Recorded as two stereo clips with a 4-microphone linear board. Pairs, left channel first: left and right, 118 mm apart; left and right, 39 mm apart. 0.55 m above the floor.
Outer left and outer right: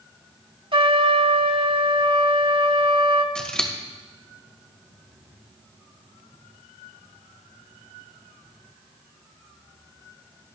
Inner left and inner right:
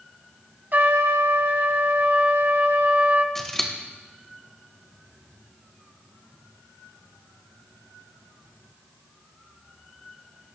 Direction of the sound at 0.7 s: 50° right (ahead or behind).